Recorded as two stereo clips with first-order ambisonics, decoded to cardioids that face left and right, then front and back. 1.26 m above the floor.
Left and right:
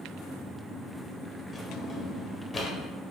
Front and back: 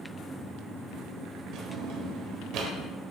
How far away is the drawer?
About 1.3 m.